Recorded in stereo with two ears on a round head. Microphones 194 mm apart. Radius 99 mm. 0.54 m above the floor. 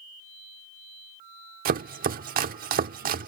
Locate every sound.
1.6 s chopping: 45° right (ahead or behind)